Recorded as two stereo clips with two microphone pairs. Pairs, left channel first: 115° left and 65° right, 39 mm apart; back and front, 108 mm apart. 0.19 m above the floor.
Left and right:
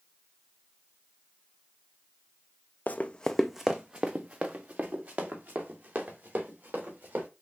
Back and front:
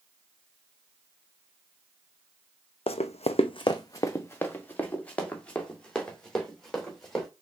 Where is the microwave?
No microwave in this recording.